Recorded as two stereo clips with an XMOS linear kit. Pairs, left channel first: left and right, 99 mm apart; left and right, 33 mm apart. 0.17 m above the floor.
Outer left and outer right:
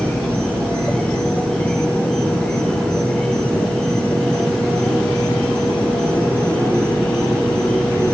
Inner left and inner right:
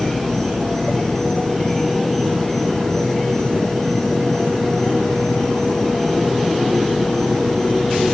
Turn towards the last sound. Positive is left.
turn(degrees=10)  # may be behind; listen again after turning